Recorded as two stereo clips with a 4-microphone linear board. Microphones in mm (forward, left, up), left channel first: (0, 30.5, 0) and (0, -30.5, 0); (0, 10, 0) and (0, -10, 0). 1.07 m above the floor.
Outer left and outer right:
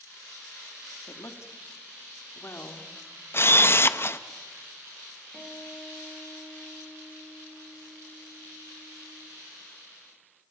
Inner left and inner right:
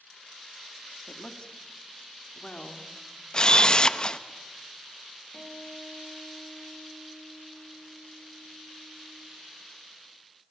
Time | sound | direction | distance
1.1 | a woman speaking | 55° left (ahead or behind) | 2.5 m
3.3 | a camera shutter | 40° left (ahead or behind) | 0.8 m
5.3 | a guitar | 5° left (ahead or behind) | 3 m